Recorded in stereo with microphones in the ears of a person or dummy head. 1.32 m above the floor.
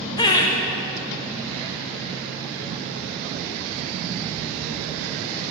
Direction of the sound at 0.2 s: 30° left (ahead or behind).